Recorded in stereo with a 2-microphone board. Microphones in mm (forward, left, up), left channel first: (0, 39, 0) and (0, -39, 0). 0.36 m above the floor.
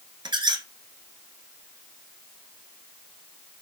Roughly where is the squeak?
Right.